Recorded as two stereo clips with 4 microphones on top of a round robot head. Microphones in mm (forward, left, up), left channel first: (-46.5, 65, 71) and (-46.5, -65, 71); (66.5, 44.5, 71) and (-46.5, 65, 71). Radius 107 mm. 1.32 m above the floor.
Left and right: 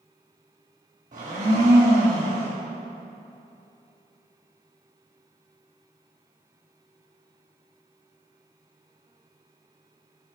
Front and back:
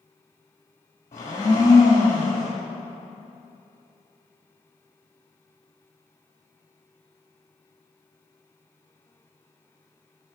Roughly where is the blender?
Ahead right.